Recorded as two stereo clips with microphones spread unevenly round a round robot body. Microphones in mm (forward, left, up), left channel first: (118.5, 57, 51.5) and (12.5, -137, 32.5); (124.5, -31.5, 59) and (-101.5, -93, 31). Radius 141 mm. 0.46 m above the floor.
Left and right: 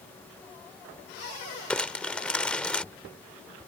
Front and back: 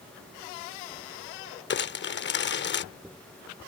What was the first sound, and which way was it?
Crumpling, 25° right.